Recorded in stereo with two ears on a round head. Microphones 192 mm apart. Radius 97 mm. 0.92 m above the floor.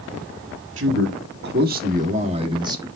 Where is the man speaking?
60° right (ahead or behind), 2 m; by 2.9 s 15° right (ahead or behind), 1.5 m.